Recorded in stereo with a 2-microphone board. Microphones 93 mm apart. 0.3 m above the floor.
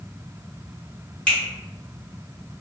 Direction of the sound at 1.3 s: 10° left (ahead or behind).